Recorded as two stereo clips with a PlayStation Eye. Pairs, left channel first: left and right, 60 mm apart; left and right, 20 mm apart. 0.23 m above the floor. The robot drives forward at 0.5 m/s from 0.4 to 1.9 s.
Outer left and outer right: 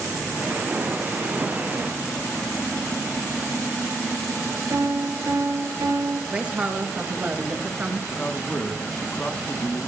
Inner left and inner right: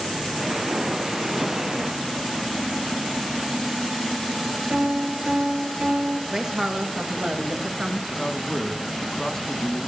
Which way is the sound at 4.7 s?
60° right (ahead or behind).